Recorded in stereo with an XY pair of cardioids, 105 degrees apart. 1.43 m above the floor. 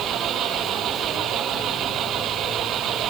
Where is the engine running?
65° right.